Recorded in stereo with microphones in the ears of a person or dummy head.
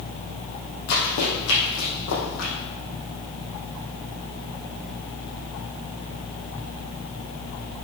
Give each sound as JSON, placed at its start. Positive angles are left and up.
{"t": 0.9, "sound": "running footsteps", "side_deg": 50, "distance_m": 2.5}